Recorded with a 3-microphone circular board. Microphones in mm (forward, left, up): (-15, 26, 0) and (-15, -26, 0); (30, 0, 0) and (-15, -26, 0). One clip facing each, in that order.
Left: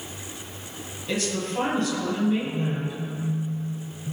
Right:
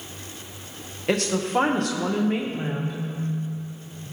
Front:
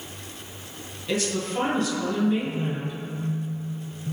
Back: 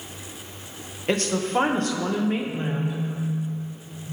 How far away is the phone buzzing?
About 1.9 m.